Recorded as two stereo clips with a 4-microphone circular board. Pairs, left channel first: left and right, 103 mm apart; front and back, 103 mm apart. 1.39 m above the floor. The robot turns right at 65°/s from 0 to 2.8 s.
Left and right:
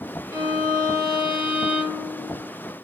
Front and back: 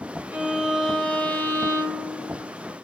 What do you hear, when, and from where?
0.3 s a violin: 115° right, 0.8 m; by 2.5 s 25° left, 0.8 m